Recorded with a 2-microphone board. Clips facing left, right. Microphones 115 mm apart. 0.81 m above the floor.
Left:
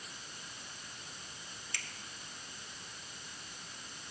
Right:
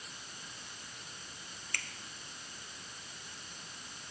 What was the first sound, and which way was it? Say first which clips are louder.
A finger snap: right 4 dB; 55° right (ahead or behind).